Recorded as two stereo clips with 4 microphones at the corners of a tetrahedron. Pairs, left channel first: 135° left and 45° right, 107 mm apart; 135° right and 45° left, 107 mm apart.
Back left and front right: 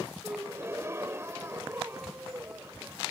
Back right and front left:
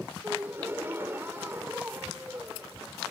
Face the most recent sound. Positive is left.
turn(degrees=-5)